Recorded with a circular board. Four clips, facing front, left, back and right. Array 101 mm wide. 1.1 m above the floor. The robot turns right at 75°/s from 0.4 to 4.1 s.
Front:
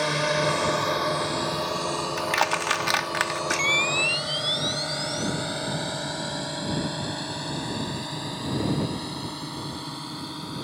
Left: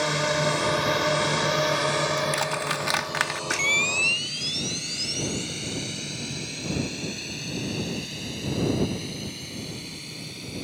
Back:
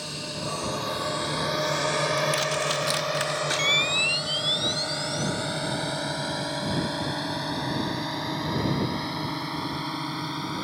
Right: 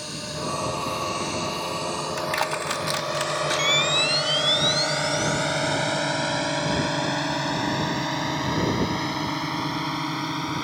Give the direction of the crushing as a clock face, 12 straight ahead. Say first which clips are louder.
Even, front 1 dB; 1 o'clock.